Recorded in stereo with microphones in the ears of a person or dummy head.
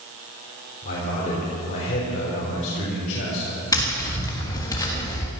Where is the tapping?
20° left (ahead or behind), 1.7 m.